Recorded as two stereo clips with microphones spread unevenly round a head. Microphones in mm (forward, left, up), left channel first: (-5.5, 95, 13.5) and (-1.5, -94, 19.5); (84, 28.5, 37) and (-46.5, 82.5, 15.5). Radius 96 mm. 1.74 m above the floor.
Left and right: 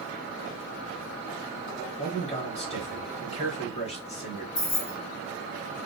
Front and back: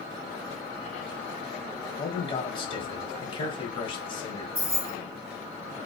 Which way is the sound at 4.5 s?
105° left.